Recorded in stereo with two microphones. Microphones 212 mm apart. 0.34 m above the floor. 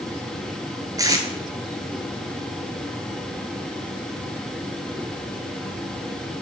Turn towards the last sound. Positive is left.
turn(degrees=-15)  # may be behind; listen again after turning